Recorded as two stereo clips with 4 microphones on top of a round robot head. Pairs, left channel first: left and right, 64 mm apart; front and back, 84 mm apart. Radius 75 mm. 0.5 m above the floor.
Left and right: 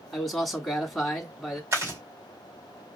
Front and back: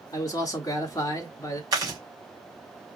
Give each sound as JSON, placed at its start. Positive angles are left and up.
{"t": 0.1, "sound": "a man speaking", "azimuth_deg": 10, "distance_m": 1.2}
{"t": 1.7, "sound": "chewing", "azimuth_deg": -135, "distance_m": 2.5}